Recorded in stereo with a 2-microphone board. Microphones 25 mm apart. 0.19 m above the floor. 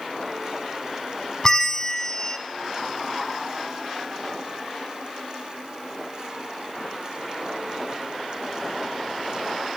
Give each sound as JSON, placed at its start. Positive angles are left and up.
{"t": 1.4, "sound": "a bell", "side_deg": 20, "distance_m": 0.7}